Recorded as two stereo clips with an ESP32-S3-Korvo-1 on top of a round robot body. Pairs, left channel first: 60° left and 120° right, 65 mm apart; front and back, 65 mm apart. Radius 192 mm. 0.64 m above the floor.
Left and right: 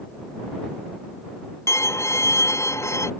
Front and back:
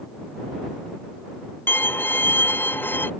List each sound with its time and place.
1.7 s a violin: 45° left